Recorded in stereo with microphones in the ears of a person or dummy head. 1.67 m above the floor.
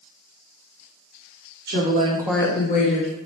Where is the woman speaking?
60° right (ahead or behind), 0.9 m; by 3.1 s 60° left (ahead or behind), 1.1 m.